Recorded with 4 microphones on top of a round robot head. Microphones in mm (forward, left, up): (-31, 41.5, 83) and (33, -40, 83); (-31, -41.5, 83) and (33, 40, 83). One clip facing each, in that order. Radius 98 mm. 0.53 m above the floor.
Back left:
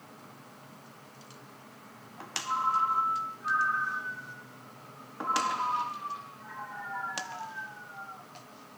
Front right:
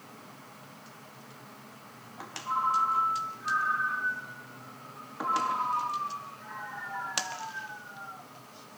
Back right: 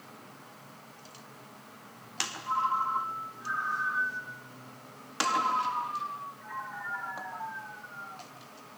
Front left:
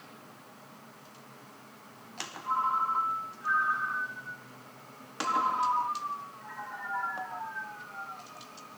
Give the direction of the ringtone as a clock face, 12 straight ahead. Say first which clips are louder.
Front right 1 dB, even; 9 o'clock.